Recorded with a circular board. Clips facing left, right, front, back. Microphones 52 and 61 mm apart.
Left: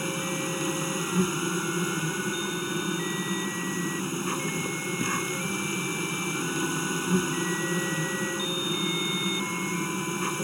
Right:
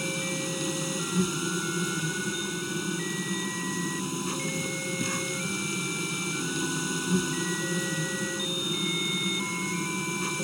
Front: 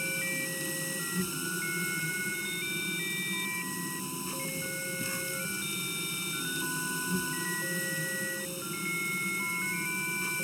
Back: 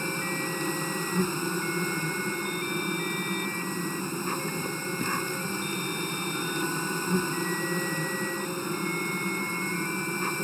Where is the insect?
150° left.